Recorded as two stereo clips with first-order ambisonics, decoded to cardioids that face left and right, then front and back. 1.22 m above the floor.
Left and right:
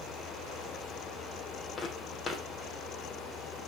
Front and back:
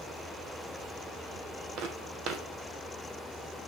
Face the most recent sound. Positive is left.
turn(degrees=165)